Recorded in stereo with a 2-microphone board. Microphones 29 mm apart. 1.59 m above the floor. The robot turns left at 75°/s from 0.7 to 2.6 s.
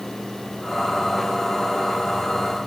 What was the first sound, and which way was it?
Only background noise.